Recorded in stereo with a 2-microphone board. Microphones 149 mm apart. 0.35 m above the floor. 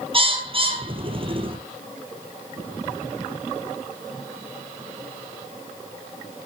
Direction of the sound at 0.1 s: 40° right (ahead or behind).